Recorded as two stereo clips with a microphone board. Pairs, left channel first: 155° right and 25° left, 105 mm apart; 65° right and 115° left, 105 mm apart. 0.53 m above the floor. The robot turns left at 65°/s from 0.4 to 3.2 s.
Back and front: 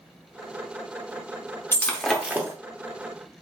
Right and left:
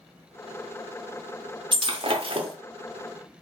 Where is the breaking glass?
135° left, 0.7 m; by 2.6 s 80° left, 0.7 m.